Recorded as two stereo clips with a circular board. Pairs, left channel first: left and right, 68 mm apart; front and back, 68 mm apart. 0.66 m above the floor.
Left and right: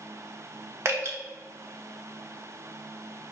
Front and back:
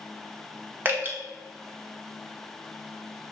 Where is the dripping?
130° right, 0.9 m.